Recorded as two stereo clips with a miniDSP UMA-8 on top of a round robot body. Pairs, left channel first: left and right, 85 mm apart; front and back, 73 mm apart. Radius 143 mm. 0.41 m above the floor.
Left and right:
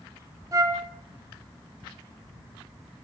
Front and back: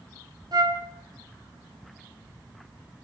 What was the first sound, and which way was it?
A flute, 145° right.